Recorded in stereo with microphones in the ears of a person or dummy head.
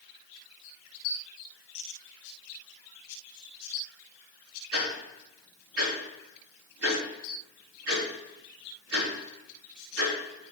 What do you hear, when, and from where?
4.7 s ticking: 85° right, 4 m